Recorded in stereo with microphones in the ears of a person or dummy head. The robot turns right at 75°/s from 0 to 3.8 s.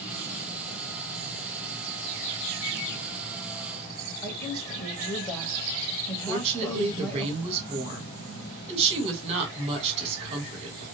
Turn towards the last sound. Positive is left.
turn(degrees=-30)  # may be behind; listen again after turning